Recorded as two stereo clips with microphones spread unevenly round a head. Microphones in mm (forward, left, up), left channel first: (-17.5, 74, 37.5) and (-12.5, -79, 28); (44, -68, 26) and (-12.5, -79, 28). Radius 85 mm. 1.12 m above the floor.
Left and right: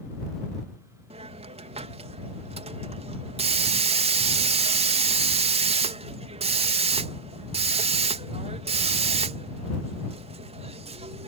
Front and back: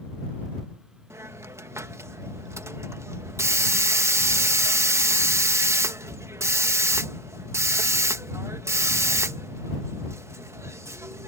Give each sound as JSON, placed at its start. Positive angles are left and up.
{"t": 1.1, "sound": "a hiss", "azimuth_deg": -135}